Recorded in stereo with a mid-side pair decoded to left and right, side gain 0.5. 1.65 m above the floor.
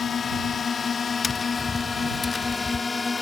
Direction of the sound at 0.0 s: 40° left.